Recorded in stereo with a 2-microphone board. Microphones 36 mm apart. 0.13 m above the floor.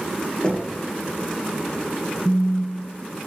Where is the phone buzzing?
40° left (ahead or behind), 0.7 m.